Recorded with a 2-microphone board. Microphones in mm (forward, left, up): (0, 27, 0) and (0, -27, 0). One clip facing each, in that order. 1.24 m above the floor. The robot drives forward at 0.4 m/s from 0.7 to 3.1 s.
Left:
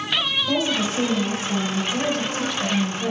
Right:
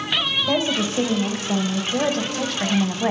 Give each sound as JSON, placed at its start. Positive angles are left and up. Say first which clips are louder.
{"t": 0.5, "sound": "a woman speaking", "louder": "right 1 dB", "side_deg": -35, "distance_m": 1.2}